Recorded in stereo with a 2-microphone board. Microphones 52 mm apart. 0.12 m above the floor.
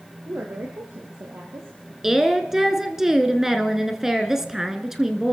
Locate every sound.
0.3 s a woman speaking: 50° right (ahead or behind), 3.5 m; by 1.9 s 60° right (ahead or behind), 3 m
2.0 s a woman speaking: 10° right (ahead or behind), 1.2 m